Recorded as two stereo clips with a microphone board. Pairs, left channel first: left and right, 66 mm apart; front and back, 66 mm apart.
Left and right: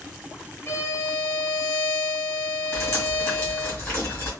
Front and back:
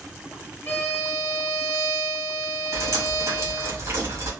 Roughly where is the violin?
Ahead left.